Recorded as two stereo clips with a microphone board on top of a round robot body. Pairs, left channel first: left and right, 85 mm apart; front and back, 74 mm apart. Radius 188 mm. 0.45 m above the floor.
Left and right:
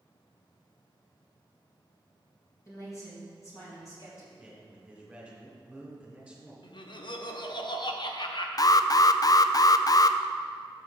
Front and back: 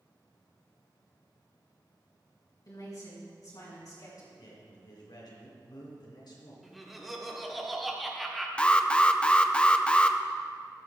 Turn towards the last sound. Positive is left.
turn(degrees=70)